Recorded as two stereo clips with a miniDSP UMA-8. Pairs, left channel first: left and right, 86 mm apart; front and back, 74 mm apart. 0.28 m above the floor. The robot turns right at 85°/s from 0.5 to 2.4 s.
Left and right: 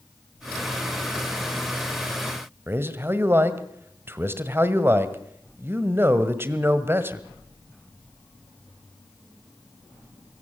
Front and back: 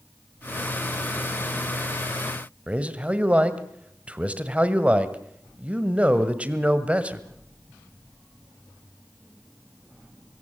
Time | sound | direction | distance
2.7 | a man speaking | 125° right | 1.6 m